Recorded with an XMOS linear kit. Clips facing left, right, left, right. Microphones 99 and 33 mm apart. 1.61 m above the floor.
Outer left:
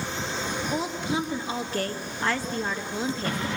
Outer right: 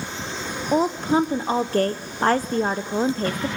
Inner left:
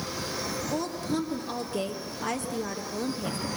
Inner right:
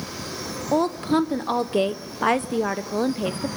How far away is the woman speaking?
About 0.7 m.